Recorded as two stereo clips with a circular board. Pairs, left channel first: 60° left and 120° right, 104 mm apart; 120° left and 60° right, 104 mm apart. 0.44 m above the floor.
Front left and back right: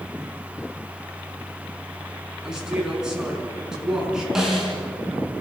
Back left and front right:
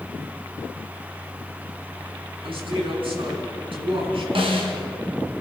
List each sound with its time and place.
2.4 s a man speaking: 35° right, 5.5 m
4.3 s a snare drum: 35° right, 4 m